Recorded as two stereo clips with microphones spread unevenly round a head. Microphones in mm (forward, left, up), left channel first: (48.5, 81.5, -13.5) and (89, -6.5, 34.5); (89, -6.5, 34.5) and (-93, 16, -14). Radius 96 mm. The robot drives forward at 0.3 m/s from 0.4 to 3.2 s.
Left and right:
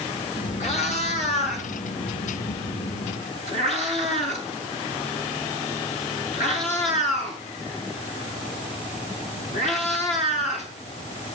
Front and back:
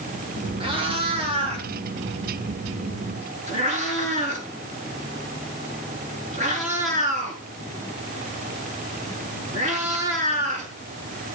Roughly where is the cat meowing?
Left.